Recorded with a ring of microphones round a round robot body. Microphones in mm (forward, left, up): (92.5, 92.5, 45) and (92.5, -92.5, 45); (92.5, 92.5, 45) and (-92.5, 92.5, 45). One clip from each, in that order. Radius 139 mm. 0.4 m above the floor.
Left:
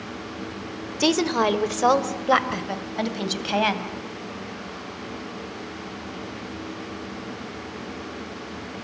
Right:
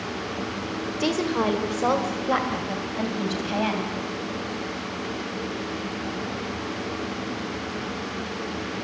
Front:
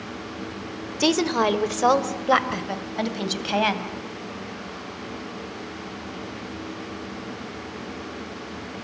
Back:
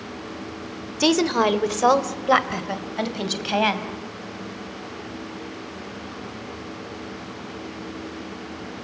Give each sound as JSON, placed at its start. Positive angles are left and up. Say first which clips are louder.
{"t": 1.0, "sound": "a woman speaking", "louder": "left 4 dB, back 2 dB", "azimuth_deg": 100, "distance_m": 1.6}